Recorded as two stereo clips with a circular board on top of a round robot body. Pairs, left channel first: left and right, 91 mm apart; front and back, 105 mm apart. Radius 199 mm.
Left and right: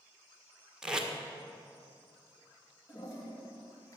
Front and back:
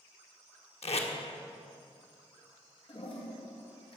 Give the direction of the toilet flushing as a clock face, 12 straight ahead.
11 o'clock.